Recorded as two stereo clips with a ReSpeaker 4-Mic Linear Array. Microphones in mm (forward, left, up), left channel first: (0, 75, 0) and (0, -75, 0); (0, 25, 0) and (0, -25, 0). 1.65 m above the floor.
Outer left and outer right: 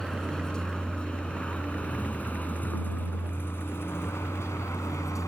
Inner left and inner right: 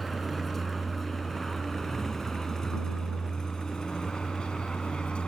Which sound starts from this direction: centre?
A vehicle, at 0.0 s.